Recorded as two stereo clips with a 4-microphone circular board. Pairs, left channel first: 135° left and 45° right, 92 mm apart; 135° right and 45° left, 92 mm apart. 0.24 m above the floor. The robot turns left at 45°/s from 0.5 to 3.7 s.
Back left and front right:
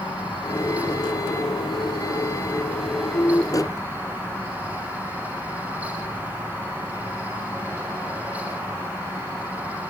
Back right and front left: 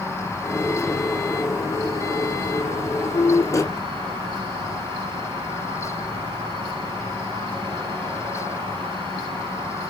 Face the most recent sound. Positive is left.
turn(degrees=15)